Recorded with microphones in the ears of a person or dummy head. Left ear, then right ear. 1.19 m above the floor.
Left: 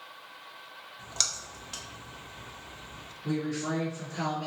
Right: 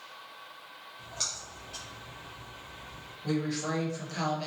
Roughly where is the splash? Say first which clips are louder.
Left 5 dB; left.